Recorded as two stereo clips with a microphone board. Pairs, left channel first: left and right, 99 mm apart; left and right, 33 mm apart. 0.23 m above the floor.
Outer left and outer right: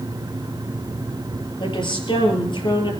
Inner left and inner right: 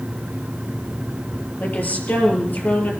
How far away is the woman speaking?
About 6 m.